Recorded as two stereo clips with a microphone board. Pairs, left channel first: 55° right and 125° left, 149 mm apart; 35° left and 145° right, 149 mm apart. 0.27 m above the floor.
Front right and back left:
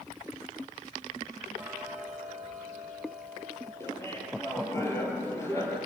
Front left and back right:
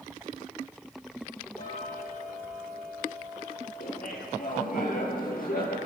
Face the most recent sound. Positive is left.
turn(degrees=15)